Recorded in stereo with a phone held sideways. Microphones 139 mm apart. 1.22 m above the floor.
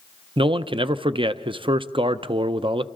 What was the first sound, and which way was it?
A man speaking, 40° right (ahead or behind).